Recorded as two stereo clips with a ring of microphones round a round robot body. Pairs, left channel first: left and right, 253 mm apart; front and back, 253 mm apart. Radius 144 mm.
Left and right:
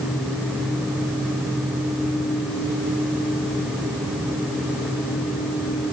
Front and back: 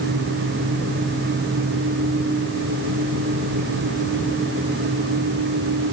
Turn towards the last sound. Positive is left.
No sound to turn to.